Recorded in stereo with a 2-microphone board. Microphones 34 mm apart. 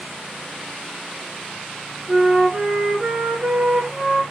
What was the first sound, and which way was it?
A flute, 45° right (ahead or behind).